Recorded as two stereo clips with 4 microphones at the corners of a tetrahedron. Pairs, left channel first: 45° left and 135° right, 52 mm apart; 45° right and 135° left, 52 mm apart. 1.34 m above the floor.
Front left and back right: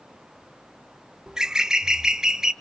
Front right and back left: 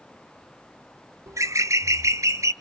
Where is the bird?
150° left, 0.6 m.